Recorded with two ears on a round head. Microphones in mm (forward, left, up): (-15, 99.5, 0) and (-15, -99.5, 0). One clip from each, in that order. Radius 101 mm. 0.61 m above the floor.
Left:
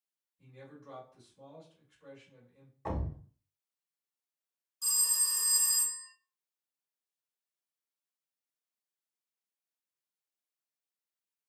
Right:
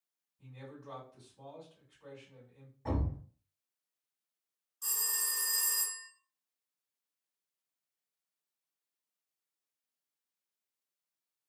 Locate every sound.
0.4 s a man speaking: 20° left (ahead or behind), 1.7 m
2.9 s a thud: 50° left (ahead or behind), 1.0 m
4.8 s a phone ringing: 30° left (ahead or behind), 1.1 m